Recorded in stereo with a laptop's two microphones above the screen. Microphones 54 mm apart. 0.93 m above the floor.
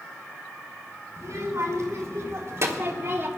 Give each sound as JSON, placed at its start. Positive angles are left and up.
{"t": 1.2, "sound": "a child speaking", "side_deg": -60, "distance_m": 3.0}